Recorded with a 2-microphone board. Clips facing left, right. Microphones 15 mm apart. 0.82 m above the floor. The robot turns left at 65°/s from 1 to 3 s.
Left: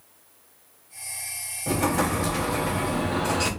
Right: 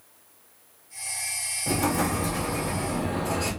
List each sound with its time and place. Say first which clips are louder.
1.7 s an explosion: left 2 dB; straight behind, 0.9 m; by 3.5 s 95° left, 0.9 m